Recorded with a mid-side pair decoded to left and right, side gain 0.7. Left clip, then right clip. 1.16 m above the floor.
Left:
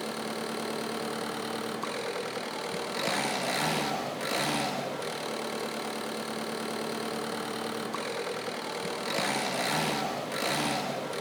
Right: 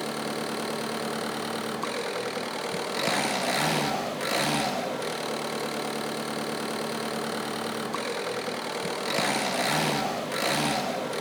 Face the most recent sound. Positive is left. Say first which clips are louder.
# right 3 dB
turn(degrees=-15)